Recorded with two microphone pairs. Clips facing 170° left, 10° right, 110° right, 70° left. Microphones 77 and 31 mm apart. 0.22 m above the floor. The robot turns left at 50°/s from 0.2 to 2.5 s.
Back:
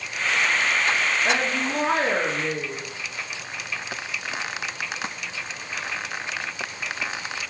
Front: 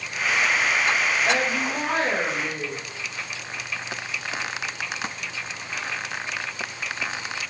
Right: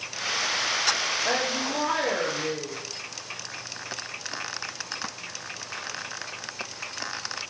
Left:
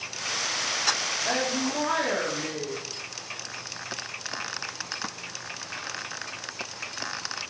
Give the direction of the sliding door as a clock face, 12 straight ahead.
No sliding door in this recording.